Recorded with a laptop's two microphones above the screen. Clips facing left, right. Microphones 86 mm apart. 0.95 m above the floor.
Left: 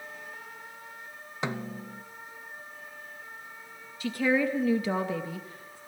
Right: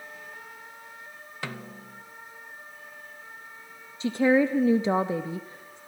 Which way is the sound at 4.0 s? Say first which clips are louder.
Right 5 dB; 25° right (ahead or behind).